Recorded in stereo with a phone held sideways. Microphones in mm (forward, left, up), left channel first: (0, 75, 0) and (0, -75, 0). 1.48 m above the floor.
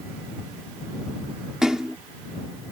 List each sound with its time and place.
1.6 s a splash: 5° right (ahead or behind)